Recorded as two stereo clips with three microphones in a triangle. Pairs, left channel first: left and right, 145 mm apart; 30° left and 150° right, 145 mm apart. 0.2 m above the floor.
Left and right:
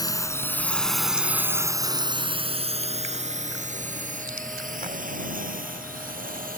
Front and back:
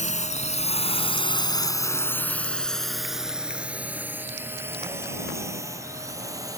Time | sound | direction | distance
0.0 | a drone | 30° left | ?